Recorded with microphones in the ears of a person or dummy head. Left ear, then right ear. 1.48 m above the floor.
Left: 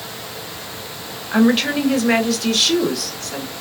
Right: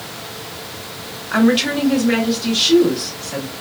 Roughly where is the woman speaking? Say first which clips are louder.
Right 1 dB; centre.